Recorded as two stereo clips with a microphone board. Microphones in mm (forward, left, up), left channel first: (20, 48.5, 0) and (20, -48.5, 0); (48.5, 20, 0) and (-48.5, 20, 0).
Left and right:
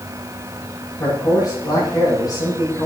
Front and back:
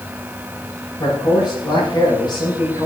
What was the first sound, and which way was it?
A man speaking, 45° left.